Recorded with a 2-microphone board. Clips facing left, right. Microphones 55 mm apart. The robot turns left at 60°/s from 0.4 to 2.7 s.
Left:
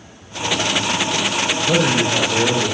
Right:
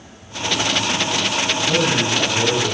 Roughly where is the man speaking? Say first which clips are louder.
Left 3 dB; left.